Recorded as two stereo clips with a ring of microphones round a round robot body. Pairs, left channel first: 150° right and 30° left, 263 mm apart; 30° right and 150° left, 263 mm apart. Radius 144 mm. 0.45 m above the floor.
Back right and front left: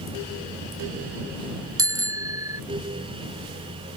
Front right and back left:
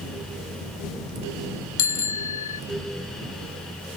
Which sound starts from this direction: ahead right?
A bicycle bell, at 1.8 s.